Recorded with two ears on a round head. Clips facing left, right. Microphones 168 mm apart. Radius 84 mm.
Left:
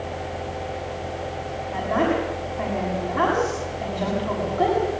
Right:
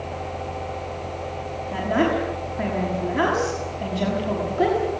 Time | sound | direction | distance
1.7 | a woman speaking | 30° right (ahead or behind) | 6.5 m